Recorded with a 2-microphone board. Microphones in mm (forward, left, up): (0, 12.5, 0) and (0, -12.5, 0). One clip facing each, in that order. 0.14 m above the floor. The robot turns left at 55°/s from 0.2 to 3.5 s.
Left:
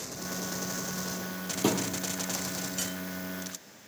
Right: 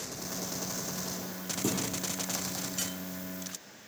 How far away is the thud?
About 1.9 m.